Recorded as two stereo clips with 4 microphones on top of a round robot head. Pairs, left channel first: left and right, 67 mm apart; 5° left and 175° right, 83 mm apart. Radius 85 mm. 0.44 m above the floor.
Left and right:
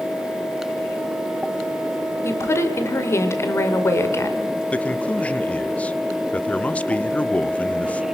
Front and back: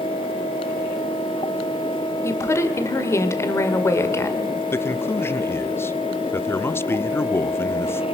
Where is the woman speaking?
50° left, 2 m.